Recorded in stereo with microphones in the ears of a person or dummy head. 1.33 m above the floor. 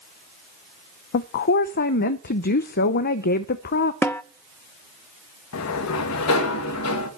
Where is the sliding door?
85° left, 1.9 m.